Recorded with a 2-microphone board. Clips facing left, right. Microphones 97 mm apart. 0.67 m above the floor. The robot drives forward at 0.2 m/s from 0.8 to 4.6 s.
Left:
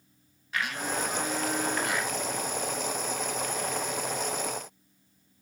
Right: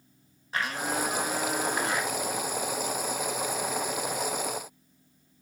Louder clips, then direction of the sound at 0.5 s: Right 2 dB; 35° right (ahead or behind).